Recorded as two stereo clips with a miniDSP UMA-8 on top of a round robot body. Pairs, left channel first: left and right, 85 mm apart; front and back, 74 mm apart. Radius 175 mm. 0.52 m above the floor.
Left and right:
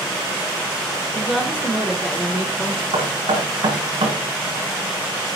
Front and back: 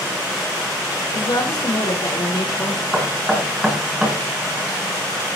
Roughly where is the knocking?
Right.